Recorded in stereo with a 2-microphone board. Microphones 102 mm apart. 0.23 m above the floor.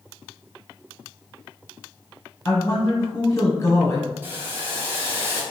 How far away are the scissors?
I don't hear scissors.